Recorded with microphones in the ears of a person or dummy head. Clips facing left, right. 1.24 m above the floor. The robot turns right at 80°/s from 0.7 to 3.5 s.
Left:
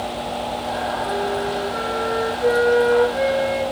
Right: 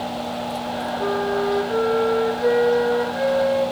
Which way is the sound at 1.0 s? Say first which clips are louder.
Right 4 dB; 130° right.